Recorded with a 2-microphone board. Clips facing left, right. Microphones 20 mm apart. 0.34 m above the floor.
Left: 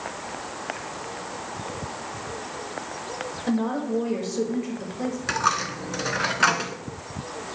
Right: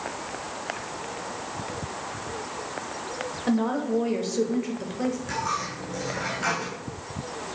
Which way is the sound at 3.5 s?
10° right (ahead or behind).